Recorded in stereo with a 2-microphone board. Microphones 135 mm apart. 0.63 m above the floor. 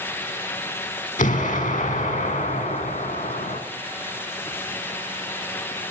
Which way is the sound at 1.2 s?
65° left (ahead or behind).